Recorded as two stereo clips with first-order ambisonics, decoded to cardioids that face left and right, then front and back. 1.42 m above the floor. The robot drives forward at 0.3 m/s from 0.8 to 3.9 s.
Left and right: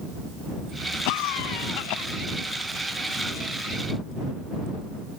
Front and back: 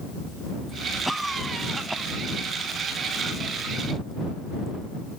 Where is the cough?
95° left.